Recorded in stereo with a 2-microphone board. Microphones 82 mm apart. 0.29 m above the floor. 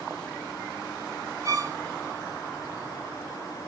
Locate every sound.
1.4 s a violin: 35° right (ahead or behind), 0.9 m